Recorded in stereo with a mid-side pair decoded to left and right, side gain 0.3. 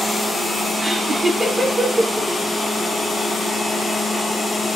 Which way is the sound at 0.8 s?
40° right.